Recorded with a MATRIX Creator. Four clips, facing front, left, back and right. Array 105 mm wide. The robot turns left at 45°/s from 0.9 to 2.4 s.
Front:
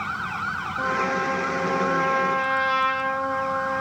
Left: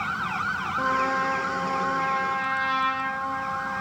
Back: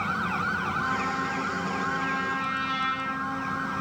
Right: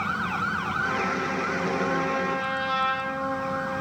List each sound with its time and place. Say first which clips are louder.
0.8 s a trumpet: left 6 dB, front 4 dB; 60° left, 1.1 m; by 3.8 s 5° right, 1.1 m